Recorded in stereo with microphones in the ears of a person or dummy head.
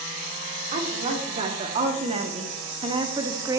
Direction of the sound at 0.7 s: 40° right (ahead or behind).